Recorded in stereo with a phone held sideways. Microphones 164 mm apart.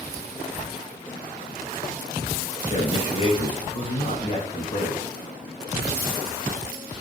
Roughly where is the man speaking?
Left.